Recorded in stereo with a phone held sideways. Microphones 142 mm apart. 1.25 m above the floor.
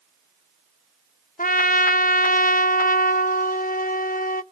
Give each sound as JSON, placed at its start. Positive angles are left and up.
{"t": 1.4, "sound": "a trumpet", "side_deg": 75, "distance_m": 0.5}